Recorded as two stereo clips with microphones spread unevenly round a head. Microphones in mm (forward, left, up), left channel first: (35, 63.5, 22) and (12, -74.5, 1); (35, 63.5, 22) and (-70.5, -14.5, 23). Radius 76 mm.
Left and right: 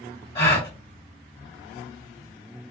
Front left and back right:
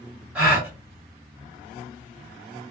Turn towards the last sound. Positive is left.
turn(degrees=135)